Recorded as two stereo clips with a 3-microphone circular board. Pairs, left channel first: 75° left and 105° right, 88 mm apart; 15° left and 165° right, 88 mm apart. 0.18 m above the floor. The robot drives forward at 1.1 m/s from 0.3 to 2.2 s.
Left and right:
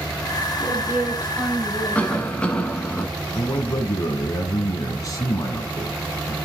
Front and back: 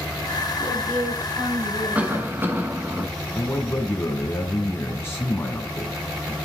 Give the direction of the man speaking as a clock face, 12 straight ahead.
10 o'clock.